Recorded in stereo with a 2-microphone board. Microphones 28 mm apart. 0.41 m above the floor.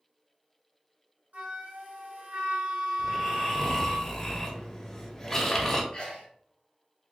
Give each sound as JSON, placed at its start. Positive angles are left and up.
{"t": 1.3, "sound": "a flute", "side_deg": -80, "distance_m": 1.9}
{"t": 3.0, "sound": "snoring", "side_deg": 20, "distance_m": 0.9}
{"t": 5.9, "sound": "a sneeze", "side_deg": 40, "distance_m": 1.8}